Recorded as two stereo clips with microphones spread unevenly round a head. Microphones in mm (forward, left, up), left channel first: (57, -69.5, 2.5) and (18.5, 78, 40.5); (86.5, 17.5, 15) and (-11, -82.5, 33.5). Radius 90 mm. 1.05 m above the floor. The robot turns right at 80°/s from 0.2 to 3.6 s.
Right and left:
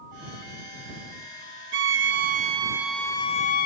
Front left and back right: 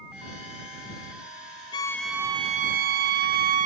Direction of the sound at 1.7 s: 105° left.